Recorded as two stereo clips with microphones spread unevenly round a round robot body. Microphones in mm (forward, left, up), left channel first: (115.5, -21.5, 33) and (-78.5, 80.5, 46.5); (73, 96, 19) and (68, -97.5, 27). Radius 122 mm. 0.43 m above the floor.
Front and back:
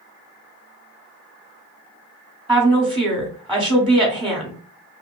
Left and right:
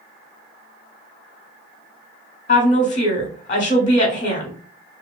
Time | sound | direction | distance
2.5 | a woman speaking | 55° left | 1.3 m